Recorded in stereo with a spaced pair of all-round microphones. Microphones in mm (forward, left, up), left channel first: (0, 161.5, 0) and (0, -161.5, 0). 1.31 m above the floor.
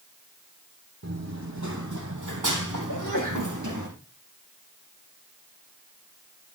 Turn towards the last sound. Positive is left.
turn(degrees=65)  # may be behind; listen again after turning